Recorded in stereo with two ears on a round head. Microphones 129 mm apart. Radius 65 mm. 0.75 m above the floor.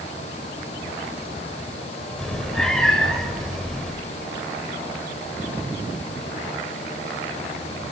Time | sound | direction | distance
2.2 | a cat meowing | 5° left (ahead or behind) | 1.5 m